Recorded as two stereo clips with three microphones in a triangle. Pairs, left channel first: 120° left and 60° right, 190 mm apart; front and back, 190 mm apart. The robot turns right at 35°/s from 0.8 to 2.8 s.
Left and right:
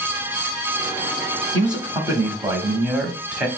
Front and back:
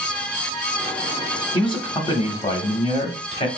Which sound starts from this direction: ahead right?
A man speaking, at 1.5 s.